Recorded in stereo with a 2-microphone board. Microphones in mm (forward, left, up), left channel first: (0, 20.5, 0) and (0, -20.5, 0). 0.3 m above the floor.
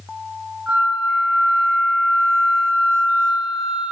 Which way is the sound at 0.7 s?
25° right (ahead or behind).